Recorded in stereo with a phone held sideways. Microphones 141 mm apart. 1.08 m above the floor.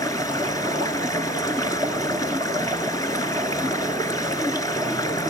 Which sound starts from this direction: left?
Running water, at 0.0 s.